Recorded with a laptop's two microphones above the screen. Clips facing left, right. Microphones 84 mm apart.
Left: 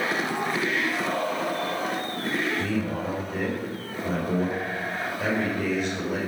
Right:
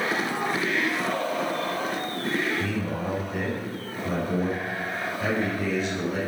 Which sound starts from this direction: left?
A man speaking, at 2.6 s.